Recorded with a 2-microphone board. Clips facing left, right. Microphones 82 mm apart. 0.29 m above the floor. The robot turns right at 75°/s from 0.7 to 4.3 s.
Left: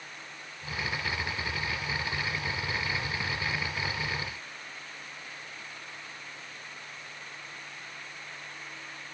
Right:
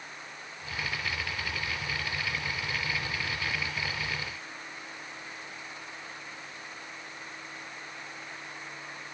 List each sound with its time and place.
Only background noise.